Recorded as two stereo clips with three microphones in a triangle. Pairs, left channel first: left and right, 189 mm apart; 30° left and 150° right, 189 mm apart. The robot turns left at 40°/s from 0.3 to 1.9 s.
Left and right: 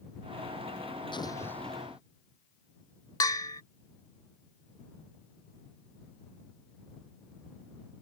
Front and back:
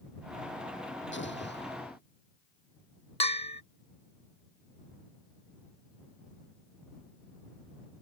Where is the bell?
40° left.